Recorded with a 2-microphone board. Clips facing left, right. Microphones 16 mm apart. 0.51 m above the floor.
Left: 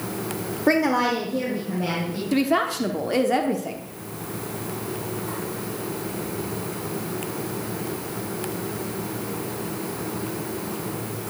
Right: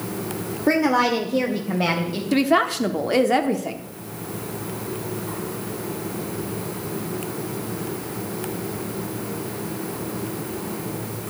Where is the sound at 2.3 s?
20° right (ahead or behind), 0.9 m.